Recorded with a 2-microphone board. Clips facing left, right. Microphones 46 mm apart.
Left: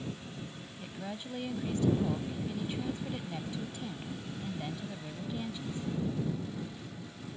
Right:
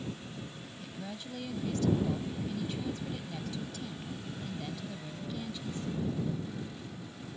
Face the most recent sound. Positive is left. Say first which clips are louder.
# left 2 dB
turn(degrees=20)  # may be behind; listen again after turning